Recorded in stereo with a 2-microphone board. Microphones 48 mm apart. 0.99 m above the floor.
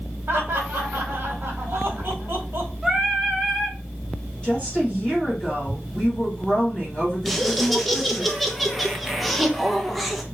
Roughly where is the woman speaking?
Left.